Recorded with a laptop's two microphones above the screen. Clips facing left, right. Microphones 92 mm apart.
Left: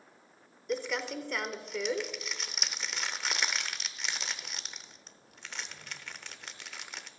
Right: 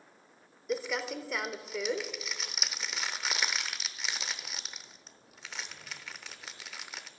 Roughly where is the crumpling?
Centre.